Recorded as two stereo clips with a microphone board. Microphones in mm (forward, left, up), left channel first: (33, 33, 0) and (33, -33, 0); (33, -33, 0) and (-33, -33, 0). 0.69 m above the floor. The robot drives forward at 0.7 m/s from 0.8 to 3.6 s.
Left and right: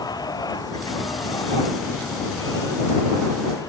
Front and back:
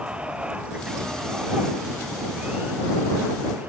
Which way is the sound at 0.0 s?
105° left.